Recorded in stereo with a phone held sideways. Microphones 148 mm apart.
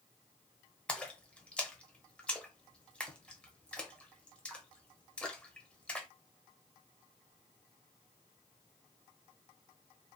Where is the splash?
5° left (ahead or behind), 1.2 m.